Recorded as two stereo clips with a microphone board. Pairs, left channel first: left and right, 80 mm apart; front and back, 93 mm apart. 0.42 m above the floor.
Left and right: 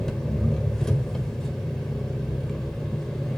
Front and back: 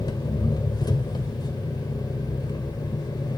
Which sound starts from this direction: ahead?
An engine running, at 0.0 s.